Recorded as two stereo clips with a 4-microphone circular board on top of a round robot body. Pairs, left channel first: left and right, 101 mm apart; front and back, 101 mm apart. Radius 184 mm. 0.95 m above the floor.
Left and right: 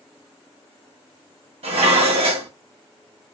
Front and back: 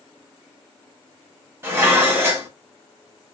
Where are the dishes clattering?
115° right, 1.2 m.